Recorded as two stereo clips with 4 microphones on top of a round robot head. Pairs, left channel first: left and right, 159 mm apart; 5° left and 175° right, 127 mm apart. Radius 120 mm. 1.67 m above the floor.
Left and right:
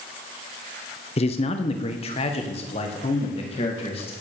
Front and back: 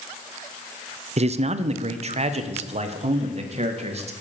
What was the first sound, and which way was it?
A man speaking, 150° left.